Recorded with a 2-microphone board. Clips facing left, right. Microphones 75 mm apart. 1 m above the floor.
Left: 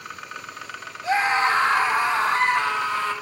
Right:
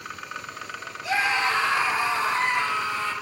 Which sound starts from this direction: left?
A scream, at 1.0 s.